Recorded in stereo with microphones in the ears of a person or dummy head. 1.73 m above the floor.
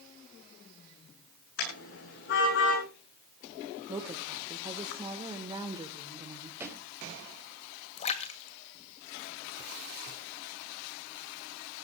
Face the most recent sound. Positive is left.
turn(degrees=35)  # may be behind; listen again after turning